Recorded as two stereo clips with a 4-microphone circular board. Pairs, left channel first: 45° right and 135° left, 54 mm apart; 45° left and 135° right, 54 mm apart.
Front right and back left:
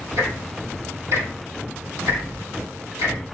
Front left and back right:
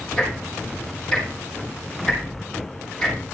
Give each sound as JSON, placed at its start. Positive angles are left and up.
{"t": 0.2, "sound": "ticking", "azimuth_deg": 125, "distance_m": 5.0}